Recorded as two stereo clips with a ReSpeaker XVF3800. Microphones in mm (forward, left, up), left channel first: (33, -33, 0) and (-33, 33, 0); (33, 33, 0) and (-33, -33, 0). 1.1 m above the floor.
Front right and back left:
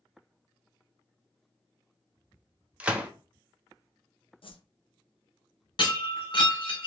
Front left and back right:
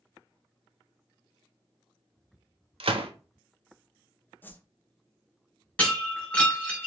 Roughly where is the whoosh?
Ahead right.